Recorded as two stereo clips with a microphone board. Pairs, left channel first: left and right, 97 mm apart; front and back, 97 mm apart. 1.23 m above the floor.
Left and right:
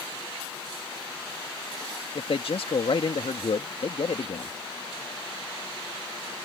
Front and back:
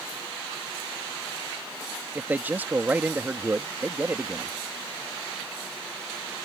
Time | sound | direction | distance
2.1 | a man speaking | 110° left | ?